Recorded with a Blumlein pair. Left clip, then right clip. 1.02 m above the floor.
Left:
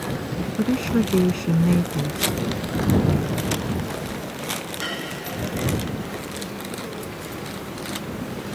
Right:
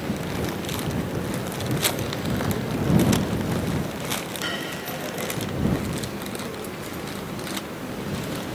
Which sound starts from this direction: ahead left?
A woman speaking, at 0.6 s.